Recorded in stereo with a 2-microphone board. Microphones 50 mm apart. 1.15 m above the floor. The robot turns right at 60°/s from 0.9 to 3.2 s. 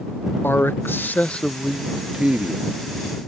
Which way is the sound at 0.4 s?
125° left.